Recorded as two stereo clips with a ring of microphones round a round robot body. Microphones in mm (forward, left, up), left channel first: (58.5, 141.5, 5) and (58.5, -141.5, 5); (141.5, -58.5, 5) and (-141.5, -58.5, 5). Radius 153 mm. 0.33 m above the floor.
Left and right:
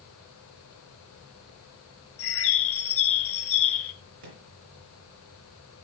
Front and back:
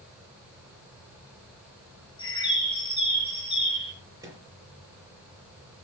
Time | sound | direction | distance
2.2 | a bird | 70° left | 2.5 m
4.2 | a microwave | 100° right | 5.5 m